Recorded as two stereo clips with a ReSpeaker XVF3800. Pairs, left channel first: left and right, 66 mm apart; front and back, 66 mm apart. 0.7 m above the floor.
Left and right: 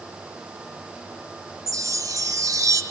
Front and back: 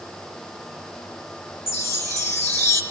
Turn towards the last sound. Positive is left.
turn(degrees=-50)